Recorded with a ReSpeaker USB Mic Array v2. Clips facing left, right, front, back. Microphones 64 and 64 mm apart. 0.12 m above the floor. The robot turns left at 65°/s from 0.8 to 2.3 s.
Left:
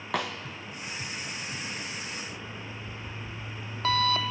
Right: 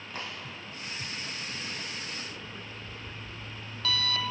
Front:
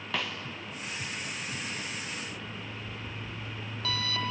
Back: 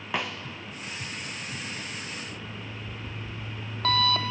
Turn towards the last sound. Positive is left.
turn(degrees=145)